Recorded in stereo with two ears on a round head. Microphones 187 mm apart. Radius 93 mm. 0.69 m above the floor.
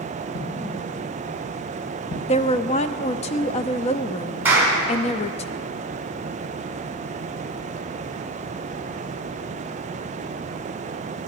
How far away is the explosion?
About 2.5 m.